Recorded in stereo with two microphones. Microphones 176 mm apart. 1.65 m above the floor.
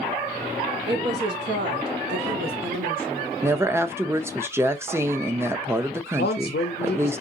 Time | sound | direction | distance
0.9 | a woman speaking | 85° right | 1.2 m
3.4 | a woman speaking | 15° right (ahead or behind) | 0.5 m
6.2 | a man speaking | 80° left | 0.5 m